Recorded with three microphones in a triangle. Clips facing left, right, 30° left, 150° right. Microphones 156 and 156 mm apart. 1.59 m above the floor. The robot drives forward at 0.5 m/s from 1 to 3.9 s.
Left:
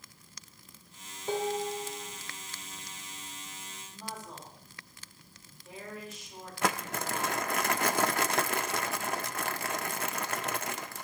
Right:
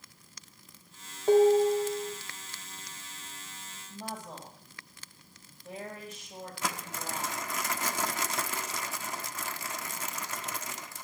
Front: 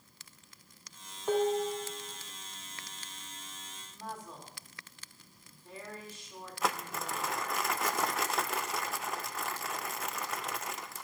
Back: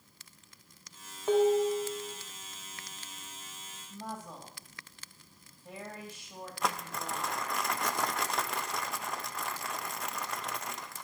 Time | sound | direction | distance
1.3 | dishes clattering | 75° right | 2 m
3.9 | a woman speaking | 130° right | 3 m
6.6 | crumpling | 120° left | 0.5 m